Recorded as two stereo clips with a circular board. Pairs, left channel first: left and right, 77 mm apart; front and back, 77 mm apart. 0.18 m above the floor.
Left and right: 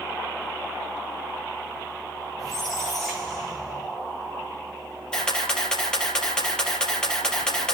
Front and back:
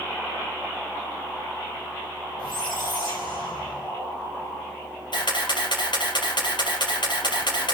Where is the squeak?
5° left, 6 m.